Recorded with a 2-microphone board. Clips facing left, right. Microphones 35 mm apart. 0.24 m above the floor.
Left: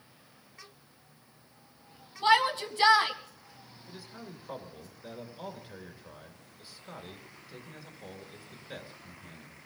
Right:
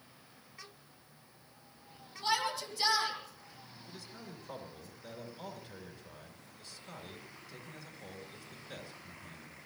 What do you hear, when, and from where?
2.2 s a shout: 45° left (ahead or behind), 1.8 m
3.9 s a man speaking: 15° left (ahead or behind), 3 m